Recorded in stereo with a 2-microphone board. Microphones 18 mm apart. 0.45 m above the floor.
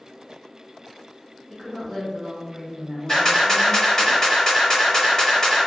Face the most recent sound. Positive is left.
turn(degrees=30)  # may be behind; listen again after turning